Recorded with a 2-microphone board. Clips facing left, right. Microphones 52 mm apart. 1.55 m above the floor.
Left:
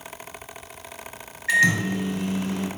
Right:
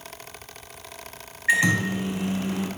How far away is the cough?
No cough in this recording.